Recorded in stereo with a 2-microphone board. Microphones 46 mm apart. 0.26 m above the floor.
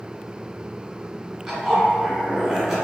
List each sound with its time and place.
1.5 s a zipper: 5° right (ahead or behind), 1.4 m